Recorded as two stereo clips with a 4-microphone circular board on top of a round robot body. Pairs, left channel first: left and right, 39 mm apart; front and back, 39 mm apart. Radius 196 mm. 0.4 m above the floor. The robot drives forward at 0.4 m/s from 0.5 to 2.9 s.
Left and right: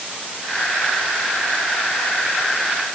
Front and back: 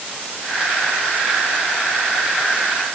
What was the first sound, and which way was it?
Only background noise.